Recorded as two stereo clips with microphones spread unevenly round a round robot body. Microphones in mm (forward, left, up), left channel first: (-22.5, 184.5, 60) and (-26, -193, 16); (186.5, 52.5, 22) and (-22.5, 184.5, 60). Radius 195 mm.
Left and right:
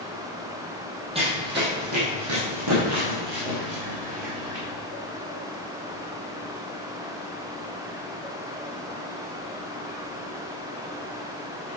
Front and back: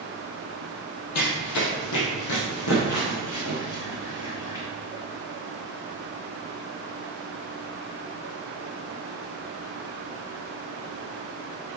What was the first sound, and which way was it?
Running footsteps, 10° right.